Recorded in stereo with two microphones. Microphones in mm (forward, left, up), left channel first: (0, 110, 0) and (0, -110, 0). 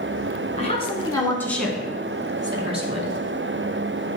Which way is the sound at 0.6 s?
30° left (ahead or behind).